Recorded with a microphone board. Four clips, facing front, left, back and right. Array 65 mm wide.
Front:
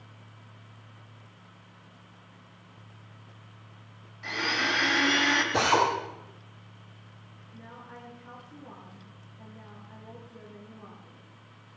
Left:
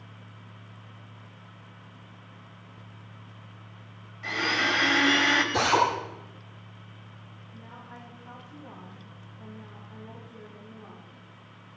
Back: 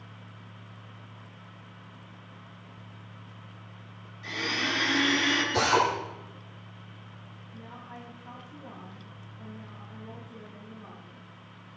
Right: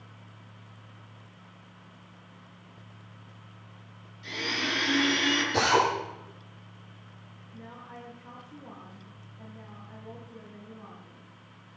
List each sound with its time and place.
4.2 s a blender: 50° left, 3.5 m
5.5 s a drill: 10° right, 9 m
7.5 s a woman speaking: 45° right, 8.5 m